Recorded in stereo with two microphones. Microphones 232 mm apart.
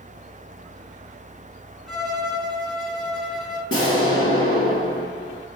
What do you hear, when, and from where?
1.9 s a violin: centre (ahead or behind), 1.5 m
3.7 s an explosion: 80° left, 1.0 m